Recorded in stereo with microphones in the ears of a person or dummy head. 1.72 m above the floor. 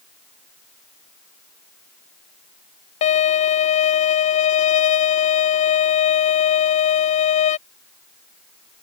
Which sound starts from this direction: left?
A violin, at 3.0 s.